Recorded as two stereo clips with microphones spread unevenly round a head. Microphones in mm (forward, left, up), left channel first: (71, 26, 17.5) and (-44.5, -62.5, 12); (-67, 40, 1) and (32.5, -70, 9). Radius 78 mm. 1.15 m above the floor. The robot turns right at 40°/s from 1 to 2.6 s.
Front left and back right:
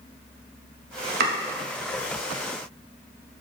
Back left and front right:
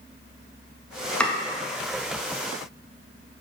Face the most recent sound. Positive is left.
turn(degrees=-90)